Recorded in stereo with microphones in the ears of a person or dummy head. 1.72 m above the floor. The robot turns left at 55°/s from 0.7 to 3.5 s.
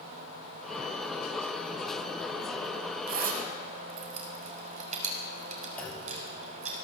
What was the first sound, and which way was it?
A zipper, 70° right (ahead or behind).